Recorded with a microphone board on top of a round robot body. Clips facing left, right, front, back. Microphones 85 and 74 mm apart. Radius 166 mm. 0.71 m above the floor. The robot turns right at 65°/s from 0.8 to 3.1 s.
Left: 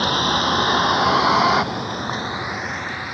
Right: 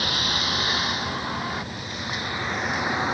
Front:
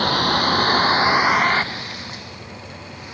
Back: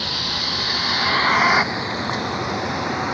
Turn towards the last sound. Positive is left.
turn(degrees=-150)